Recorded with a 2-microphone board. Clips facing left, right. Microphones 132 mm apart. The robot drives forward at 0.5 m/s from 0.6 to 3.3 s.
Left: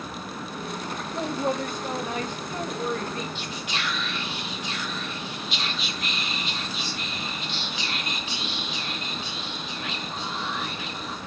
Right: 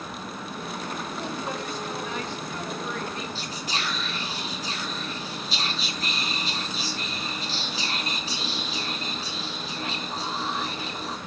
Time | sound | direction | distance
1.1 | a woman speaking | 60° left (ahead or behind) | 1.9 m
3.4 | whispering | 35° right (ahead or behind) | 1.9 m